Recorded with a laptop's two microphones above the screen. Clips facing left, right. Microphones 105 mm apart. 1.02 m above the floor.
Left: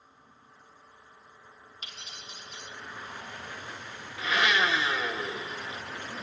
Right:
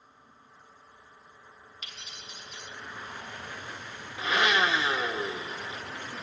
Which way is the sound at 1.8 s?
35° left (ahead or behind).